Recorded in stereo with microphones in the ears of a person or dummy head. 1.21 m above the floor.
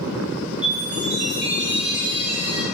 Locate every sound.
0.6 s a chime: 5° right (ahead or behind), 1.3 m